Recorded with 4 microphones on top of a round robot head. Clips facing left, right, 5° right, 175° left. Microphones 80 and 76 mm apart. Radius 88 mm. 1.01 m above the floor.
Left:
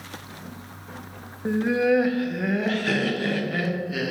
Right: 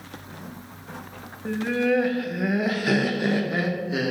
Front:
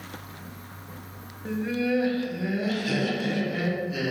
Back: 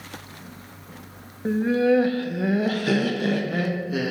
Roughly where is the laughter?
Behind left.